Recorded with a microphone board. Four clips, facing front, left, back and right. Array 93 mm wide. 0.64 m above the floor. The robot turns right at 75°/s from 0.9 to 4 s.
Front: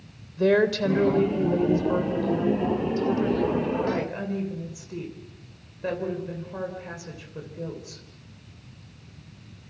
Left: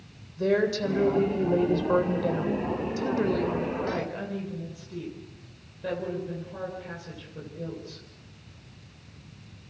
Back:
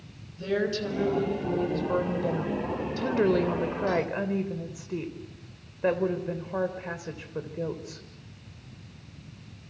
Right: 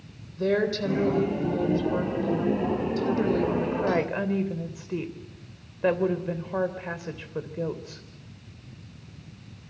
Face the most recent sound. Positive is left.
turn(degrees=-120)